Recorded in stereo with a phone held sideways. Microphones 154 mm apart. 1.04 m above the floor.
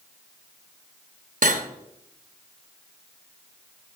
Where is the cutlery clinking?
55° right (ahead or behind), 0.9 m.